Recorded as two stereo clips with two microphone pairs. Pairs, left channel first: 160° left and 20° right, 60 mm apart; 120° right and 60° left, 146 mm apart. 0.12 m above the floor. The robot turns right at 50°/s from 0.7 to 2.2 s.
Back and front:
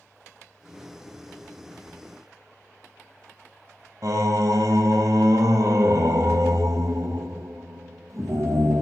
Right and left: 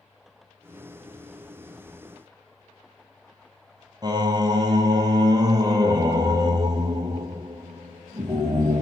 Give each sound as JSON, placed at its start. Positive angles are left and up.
{"t": 4.0, "sound": "singing", "azimuth_deg": 0, "distance_m": 0.6}